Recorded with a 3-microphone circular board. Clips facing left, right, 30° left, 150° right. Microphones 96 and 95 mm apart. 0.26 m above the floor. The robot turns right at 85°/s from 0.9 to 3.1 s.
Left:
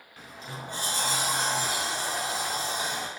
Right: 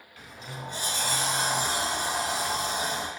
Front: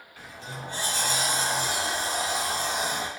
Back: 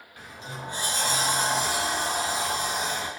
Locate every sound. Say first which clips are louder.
0.2 s a sliding door: left 1 dB, back 1 dB; 140° left, 0.5 m; by 3.1 s 35° right, 0.5 m